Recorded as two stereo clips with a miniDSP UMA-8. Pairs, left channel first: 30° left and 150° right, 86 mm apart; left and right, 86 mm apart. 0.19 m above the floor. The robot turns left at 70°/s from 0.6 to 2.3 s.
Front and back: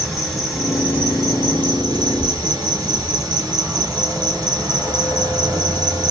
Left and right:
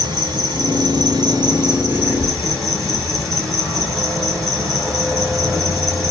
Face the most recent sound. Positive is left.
turn(degrees=180)